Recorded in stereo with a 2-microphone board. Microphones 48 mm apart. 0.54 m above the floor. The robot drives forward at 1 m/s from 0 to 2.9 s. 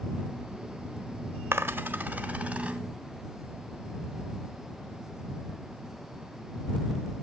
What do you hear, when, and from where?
1.5 s a dropped coin: 60° right (ahead or behind), 0.9 m; by 2.8 s 25° right (ahead or behind), 1.8 m